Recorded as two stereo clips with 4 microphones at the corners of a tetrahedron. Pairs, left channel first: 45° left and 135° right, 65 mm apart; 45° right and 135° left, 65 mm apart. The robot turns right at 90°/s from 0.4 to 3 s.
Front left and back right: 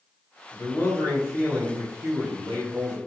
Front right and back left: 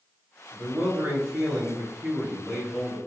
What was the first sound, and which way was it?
A man speaking, 60° left.